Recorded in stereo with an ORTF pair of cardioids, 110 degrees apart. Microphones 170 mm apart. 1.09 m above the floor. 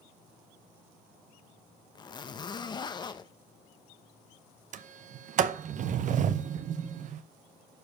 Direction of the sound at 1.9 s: 25° left.